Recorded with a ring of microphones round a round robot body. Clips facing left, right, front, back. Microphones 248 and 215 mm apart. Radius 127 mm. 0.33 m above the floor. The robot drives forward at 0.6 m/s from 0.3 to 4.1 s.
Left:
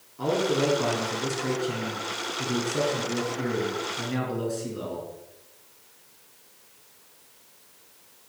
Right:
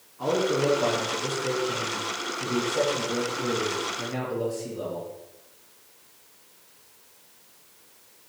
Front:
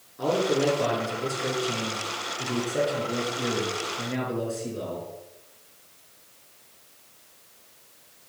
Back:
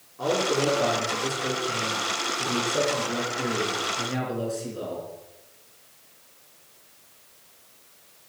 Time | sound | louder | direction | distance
0.2 | a man speaking | even, front 1 dB | 70° left | 5.5 m